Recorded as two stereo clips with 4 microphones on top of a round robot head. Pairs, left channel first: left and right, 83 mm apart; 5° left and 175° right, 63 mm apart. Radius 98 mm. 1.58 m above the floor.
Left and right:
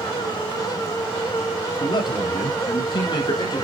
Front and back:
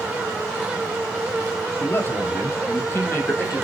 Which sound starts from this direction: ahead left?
A man speaking, at 1.8 s.